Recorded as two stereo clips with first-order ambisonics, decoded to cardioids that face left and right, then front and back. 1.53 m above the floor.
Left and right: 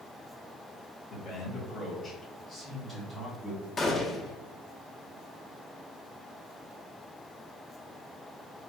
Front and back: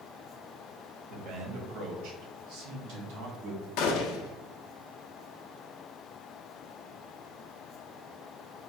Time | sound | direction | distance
1.1 | a man speaking | 145° left | 1.2 m
3.8 | a gunshot | 20° left | 0.8 m